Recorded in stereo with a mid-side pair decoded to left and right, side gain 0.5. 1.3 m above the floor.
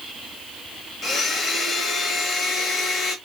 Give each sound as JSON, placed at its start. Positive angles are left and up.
{"t": 1.0, "sound": "a blender", "azimuth_deg": 45, "distance_m": 1.3}